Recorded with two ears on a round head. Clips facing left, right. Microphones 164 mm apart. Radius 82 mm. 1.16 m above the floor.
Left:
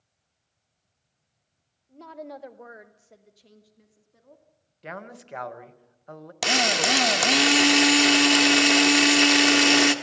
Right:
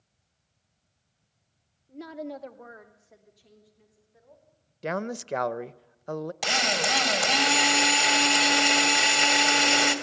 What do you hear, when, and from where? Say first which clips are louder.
1.9 s a woman speaking: right 3 dB; 25° right (ahead or behind), 1.0 m; by 4.4 s 60° left (ahead or behind), 2.5 m
4.8 s a man speaking: right 9 dB; 55° right (ahead or behind), 0.7 m
6.4 s a drill: left 6 dB; 65° left (ahead or behind), 1.4 m